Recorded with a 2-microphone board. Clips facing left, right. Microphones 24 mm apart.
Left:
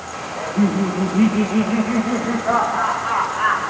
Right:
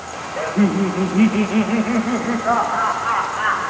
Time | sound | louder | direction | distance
0.4 | laughter | right 1 dB | 35° right (ahead or behind) | 1.2 m